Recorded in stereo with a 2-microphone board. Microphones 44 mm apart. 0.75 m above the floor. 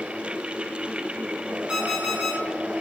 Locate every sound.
1.7 s an alarm clock: 20° right (ahead or behind), 1.9 m